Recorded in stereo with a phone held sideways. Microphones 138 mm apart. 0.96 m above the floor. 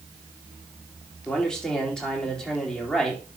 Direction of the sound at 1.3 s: 5° left (ahead or behind).